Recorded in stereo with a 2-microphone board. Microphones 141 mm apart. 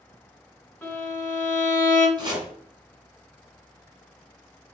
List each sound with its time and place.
0.8 s a violin: 20° left (ahead or behind), 1.3 m
2.2 s chopping: 30° right (ahead or behind), 1.7 m